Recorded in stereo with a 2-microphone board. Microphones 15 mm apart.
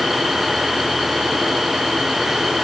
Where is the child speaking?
I don't hear a child speaking.